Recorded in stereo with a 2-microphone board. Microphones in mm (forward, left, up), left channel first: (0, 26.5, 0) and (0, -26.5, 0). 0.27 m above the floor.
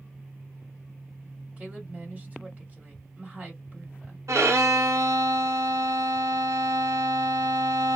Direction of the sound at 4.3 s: 75° right (ahead or behind).